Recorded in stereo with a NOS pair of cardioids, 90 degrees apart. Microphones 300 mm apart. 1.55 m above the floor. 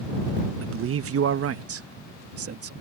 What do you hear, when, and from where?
0.6 s a man speaking: 50° right; by 2.7 s 55° right